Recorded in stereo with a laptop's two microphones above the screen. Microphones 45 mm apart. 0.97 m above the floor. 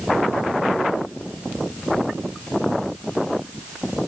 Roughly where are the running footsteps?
I don't hear running footsteps.